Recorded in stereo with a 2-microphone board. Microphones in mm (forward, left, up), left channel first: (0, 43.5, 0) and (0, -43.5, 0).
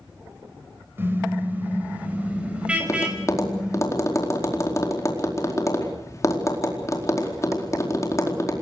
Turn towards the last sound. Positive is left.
turn(degrees=35)  # may be behind; listen again after turning